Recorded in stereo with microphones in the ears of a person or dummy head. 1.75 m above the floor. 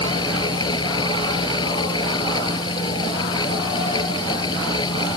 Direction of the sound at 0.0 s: 30° left (ahead or behind).